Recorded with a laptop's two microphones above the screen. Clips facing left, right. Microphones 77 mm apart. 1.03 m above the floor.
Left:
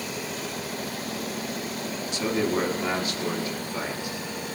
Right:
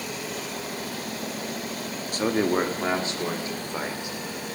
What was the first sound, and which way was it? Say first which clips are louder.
A man speaking: right 3 dB; 45° right (ahead or behind).